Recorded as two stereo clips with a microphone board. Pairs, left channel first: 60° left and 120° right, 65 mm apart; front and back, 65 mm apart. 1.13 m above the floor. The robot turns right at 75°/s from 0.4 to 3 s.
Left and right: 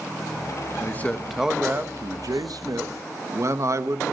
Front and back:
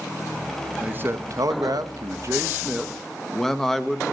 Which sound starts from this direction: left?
A man speaking, at 0.8 s.